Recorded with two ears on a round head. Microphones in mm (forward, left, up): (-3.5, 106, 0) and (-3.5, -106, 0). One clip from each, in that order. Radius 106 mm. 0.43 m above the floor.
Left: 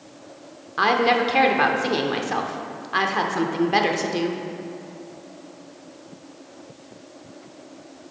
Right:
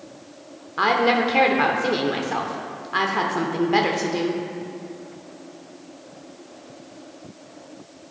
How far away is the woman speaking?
About 0.7 m.